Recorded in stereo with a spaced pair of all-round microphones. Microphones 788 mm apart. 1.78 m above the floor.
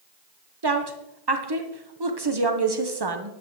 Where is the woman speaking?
35° right (ahead or behind), 0.9 m.